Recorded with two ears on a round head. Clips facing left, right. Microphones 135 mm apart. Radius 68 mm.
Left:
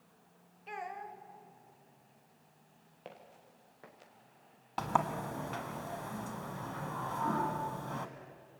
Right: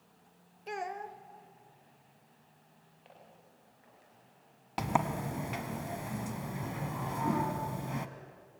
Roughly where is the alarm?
I don't hear an alarm.